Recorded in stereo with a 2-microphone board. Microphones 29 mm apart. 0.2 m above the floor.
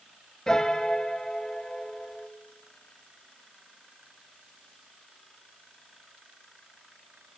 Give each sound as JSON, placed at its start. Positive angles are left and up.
{"t": 0.5, "sound": "a piano", "side_deg": 15, "distance_m": 1.4}